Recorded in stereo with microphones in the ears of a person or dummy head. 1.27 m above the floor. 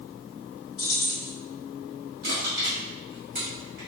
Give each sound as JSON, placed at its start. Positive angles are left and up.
{"t": 0.8, "sound": "keys jangling", "side_deg": 20, "distance_m": 1.3}
{"t": 2.2, "sound": "crushing", "side_deg": -50, "distance_m": 1.8}